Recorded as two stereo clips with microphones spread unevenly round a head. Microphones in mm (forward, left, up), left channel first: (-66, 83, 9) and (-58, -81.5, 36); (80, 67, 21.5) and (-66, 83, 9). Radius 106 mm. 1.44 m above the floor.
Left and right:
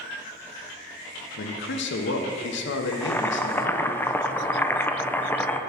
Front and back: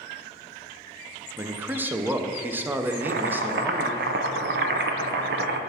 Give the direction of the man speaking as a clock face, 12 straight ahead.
9 o'clock.